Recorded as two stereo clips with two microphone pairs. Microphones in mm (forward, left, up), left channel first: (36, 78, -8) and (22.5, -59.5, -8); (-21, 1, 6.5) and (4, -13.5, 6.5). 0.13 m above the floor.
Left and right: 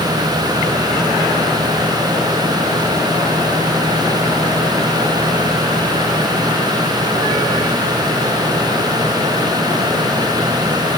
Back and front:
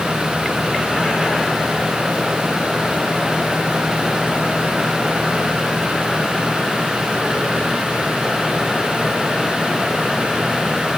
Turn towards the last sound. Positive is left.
No sound to turn to.